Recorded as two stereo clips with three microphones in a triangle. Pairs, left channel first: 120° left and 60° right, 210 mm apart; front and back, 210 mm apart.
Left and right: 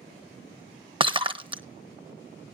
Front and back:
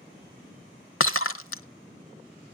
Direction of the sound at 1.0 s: 5° left.